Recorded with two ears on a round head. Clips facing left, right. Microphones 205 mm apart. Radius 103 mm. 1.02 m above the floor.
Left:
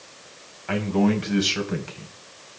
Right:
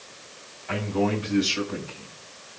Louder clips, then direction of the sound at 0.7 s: Left 4 dB; 65° left (ahead or behind).